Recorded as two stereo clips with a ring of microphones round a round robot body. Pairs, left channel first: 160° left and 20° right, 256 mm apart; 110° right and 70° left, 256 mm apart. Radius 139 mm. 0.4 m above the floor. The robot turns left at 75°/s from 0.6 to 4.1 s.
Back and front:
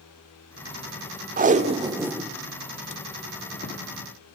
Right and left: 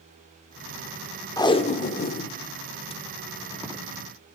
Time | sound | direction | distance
1.4 | tape being pulled | 45° right | 0.9 m